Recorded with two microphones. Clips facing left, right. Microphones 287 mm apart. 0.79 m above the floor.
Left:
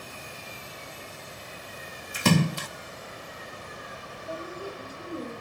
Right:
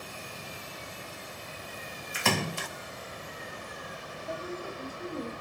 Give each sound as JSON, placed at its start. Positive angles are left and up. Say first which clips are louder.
{"t": 2.1, "sound": "a splash", "louder": "left 8 dB", "side_deg": 45, "distance_m": 0.8}
{"t": 4.3, "sound": "a woman speaking", "louder": "left 1 dB", "side_deg": 5, "distance_m": 4.5}